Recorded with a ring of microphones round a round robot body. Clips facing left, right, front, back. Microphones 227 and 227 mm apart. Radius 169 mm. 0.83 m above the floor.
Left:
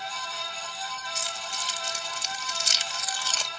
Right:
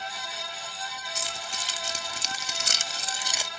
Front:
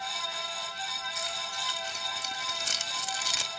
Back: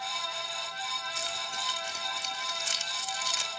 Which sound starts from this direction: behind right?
Keys jangling, at 1.1 s.